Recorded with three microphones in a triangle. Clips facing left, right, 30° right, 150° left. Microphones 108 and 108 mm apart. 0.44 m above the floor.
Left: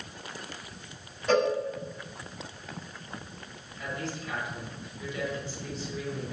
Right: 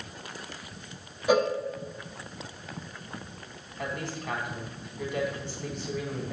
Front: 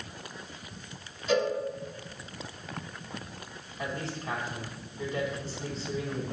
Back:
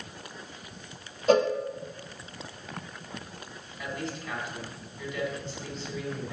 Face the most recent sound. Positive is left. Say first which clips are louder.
# right 1 dB, even
turn(degrees=-80)